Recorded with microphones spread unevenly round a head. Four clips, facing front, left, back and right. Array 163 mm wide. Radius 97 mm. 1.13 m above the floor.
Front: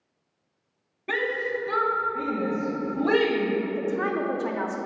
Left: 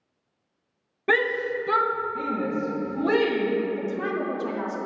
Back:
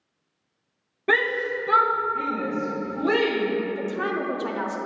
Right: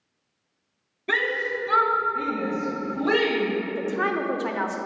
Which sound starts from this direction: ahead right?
A woman speaking, at 3.7 s.